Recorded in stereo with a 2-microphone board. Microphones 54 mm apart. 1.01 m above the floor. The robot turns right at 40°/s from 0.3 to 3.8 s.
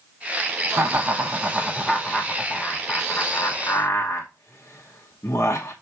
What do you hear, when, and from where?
0.7 s laughter: 50° right (ahead or behind), 0.8 m; by 5.7 s 50° left (ahead or behind), 0.8 m